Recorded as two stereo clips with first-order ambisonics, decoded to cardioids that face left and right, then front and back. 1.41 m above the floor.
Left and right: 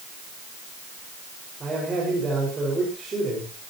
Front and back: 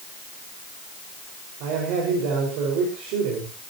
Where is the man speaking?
165° right, 5.5 m.